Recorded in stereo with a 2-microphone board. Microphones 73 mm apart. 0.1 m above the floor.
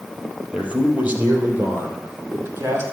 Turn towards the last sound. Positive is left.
turn(degrees=-40)  # may be behind; listen again after turning